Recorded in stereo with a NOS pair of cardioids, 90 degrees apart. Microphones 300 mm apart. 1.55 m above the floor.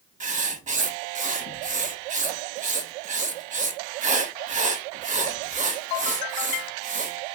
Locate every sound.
0.2 s writing: 25° right, 0.8 m